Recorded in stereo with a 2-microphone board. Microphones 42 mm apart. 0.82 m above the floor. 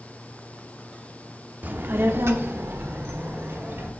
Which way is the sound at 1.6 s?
50° right (ahead or behind).